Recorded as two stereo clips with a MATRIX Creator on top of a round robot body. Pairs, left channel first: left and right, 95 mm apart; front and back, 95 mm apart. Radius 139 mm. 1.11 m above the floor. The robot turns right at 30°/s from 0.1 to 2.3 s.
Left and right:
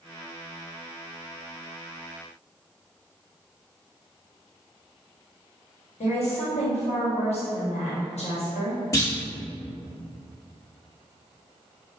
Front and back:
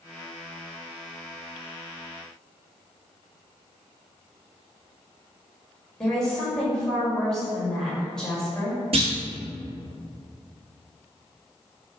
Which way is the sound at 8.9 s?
155° left.